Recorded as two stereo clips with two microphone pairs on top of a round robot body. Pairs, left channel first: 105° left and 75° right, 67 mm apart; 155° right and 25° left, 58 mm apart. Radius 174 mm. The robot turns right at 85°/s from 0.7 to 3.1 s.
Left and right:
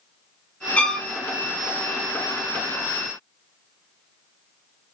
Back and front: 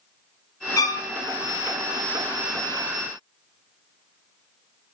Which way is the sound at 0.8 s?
175° left.